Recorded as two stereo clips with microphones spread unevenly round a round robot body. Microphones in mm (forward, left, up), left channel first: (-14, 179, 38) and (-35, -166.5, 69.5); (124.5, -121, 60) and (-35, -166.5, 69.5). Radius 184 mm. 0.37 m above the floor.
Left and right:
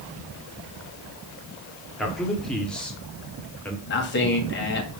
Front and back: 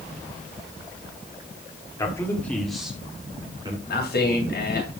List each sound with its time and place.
2.0 s a man speaking: 10° left, 1.5 m; by 3.8 s 160° left, 1.6 m
3.9 s a man speaking: 30° left, 2.5 m